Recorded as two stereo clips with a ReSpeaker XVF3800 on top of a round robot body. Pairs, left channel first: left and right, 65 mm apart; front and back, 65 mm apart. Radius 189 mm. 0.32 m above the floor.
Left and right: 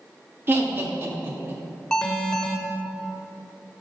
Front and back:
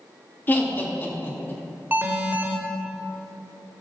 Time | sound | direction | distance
0.5 | laughter | 50° right | 1.8 m
1.9 | an alarm | 160° left | 1.8 m